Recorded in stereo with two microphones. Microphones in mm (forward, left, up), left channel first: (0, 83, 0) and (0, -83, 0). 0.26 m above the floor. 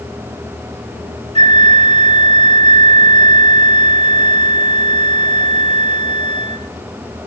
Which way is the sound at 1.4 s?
45° right (ahead or behind).